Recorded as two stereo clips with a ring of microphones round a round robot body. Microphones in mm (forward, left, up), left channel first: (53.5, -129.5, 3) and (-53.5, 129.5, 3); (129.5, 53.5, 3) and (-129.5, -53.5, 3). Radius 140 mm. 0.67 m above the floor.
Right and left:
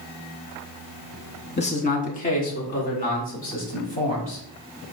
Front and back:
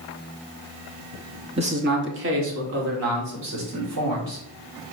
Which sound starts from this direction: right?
A man speaking, at 1.6 s.